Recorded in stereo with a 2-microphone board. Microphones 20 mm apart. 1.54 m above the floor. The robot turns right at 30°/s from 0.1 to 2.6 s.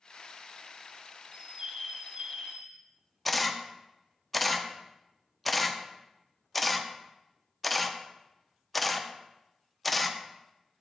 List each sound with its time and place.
1.3 s a bird: 130° right, 0.8 m; by 2.8 s 90° right, 0.8 m
3.2 s a camera shutter: centre (ahead or behind), 0.5 m